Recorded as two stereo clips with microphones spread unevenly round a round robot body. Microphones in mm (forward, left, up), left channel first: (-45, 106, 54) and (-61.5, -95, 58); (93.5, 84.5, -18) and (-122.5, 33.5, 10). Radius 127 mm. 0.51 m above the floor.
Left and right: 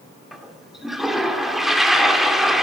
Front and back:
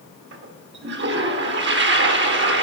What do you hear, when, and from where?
0.3 s a toilet flushing: 175° left, 1.9 m